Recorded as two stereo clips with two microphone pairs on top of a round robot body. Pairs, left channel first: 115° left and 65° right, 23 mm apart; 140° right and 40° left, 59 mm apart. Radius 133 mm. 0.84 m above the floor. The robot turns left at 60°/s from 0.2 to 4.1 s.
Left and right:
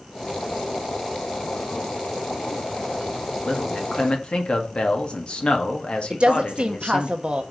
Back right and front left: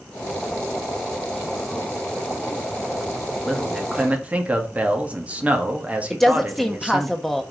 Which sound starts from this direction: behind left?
A man speaking, at 3.5 s.